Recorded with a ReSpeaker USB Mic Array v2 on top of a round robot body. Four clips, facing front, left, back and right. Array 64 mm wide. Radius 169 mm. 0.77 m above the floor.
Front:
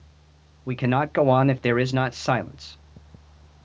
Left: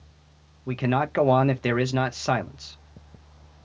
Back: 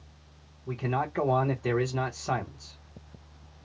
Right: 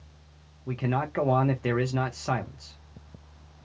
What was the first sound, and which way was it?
A man speaking, 20° left.